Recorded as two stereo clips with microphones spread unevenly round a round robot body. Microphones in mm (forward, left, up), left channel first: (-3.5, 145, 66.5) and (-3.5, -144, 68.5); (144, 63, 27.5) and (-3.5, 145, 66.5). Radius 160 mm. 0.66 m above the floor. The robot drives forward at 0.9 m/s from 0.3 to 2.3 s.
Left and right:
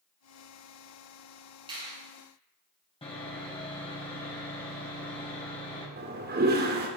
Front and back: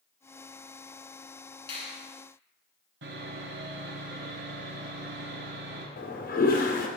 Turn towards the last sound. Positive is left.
turn(degrees=-35)